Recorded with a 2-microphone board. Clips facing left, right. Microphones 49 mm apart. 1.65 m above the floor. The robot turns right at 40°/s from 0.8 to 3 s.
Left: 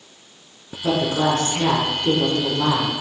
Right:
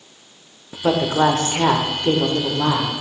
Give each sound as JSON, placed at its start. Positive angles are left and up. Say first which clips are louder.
{"t": 0.8, "sound": "a woman speaking", "louder": "right 3 dB", "azimuth_deg": -95, "distance_m": 0.9}